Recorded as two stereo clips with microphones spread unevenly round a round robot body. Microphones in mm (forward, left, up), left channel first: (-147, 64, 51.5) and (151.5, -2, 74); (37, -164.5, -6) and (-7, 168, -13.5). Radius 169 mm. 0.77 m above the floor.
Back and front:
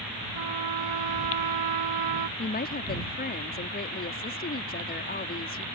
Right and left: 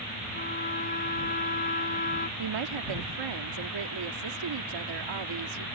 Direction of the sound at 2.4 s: 110° left.